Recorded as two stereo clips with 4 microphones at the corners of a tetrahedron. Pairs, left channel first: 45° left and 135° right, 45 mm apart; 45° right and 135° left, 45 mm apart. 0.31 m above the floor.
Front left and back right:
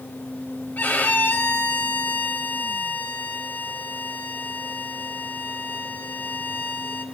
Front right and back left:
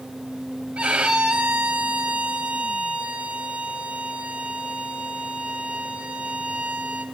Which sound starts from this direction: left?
A violin, at 0.8 s.